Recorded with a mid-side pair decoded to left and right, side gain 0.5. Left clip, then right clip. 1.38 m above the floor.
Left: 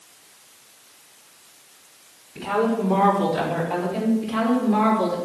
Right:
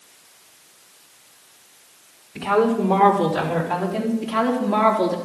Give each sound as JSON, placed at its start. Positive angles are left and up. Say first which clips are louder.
{"t": 2.4, "sound": "a woman speaking", "louder": "right 3 dB", "azimuth_deg": -60, "distance_m": 4.5}
{"t": 4.2, "sound": "a woman speaking", "louder": "right 4 dB", "azimuth_deg": -65, "distance_m": 3.5}